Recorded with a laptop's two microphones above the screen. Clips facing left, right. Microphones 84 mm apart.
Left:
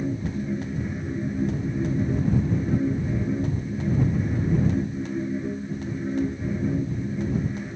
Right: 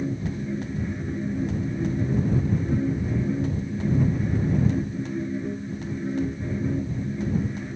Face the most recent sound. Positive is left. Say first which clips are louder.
# left 1 dB
turn(degrees=5)  # may be behind; listen again after turning